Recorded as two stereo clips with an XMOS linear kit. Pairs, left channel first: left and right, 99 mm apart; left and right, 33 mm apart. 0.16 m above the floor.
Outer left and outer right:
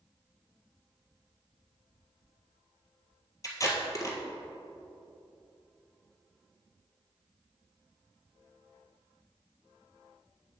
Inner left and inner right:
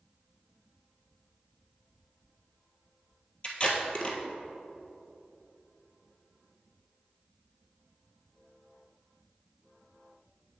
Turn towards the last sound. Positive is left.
turn(degrees=35)  # may be behind; listen again after turning